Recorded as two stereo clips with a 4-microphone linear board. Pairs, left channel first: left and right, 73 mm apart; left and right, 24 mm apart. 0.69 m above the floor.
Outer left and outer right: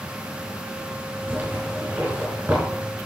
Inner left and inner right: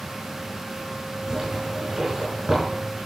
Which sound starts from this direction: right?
A zipper, at 1.3 s.